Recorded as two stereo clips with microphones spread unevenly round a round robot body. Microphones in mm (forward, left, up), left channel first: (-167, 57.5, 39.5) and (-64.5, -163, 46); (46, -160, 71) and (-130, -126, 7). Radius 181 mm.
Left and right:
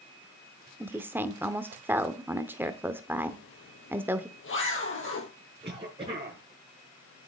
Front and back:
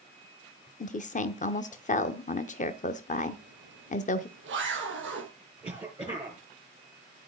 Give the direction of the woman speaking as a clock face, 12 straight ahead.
12 o'clock.